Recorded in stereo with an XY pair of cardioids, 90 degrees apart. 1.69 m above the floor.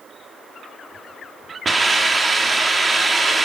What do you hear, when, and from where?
1.6 s a hiss: 25° right, 4 m